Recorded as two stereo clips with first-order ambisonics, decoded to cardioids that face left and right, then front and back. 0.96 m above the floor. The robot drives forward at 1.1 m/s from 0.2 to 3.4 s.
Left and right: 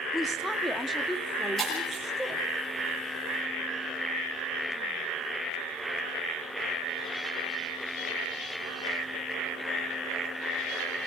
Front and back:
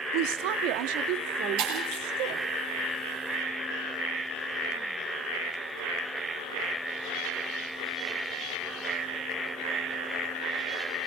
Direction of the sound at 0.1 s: 175° left.